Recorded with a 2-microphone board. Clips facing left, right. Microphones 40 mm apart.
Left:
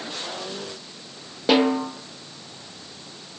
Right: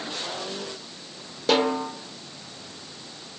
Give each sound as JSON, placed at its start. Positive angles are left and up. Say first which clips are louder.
{"t": 1.5, "sound": "a snare drum", "louder": "left 3 dB", "side_deg": 25, "distance_m": 1.4}